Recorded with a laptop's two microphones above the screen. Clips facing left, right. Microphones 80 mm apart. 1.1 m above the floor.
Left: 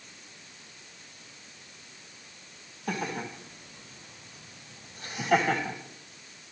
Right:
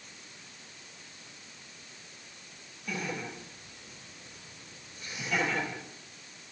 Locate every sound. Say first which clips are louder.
2.9 s laughter: left 3 dB; 70° left (ahead or behind), 7.5 m; by 5.8 s 80° left, 6.5 m